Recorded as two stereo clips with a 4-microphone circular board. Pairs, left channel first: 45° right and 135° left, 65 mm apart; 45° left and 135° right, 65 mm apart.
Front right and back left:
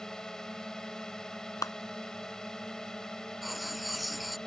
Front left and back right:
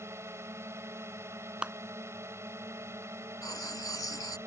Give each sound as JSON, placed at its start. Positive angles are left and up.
{"t": 0.0, "sound": "a drone", "azimuth_deg": -120}
{"t": 1.6, "sound": "a clap", "azimuth_deg": -60}
{"t": 3.4, "sound": "writing", "azimuth_deg": 45}